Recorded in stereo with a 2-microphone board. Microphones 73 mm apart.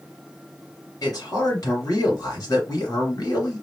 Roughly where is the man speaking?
Left.